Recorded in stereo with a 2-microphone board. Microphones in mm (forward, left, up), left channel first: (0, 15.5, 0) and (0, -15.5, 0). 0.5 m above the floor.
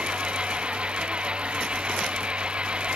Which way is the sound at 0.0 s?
35° right (ahead or behind).